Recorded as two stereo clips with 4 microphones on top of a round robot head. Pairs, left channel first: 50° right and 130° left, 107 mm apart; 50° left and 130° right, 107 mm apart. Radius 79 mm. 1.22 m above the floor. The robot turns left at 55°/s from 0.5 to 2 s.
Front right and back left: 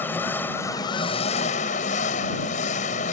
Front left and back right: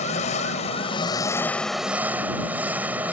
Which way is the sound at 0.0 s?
25° left.